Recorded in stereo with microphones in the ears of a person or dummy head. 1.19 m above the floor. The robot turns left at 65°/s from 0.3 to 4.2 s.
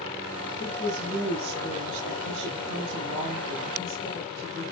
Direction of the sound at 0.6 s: 50° left.